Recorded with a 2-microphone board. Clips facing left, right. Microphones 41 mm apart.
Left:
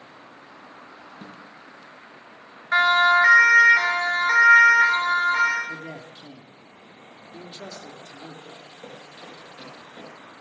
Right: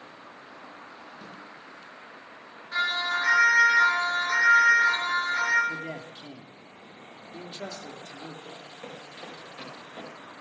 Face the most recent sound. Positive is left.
turn(degrees=-25)  # may be behind; listen again after turning